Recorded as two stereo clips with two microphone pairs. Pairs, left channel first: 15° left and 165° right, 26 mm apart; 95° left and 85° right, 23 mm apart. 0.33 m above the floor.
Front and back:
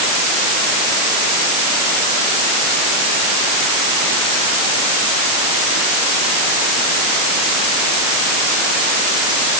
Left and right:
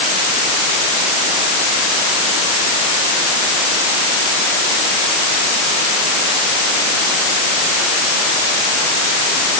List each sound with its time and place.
Only background noise.